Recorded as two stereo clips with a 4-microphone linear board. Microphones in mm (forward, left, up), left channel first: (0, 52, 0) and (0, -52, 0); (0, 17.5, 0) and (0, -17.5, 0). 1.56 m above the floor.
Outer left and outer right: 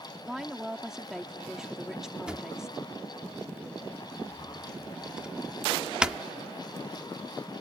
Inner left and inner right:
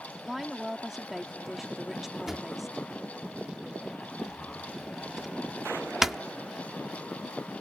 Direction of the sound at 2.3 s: 10° right (ahead or behind).